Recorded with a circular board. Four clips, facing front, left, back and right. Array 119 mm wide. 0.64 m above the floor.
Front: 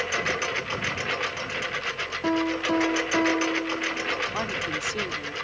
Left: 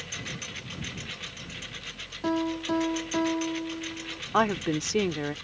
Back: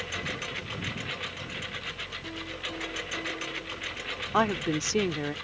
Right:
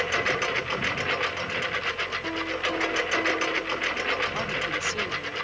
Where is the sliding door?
I don't hear a sliding door.